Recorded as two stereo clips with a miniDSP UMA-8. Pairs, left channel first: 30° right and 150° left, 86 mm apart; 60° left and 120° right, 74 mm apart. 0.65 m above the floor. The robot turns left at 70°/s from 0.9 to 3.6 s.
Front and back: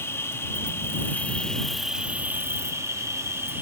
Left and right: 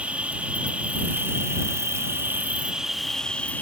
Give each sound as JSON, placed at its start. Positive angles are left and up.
{"t": 0.0, "sound": "an insect", "azimuth_deg": -60}